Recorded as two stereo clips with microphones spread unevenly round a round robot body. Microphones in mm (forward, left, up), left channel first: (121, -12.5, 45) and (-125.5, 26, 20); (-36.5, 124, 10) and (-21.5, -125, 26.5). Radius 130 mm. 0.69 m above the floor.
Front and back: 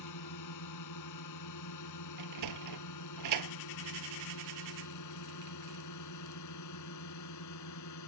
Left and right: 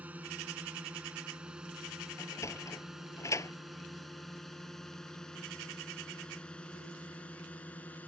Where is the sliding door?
170° left.